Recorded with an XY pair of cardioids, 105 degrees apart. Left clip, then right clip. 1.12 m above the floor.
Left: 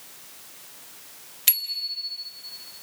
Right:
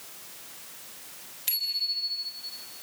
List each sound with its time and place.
1.5 s a bicycle bell: 70° left, 3 m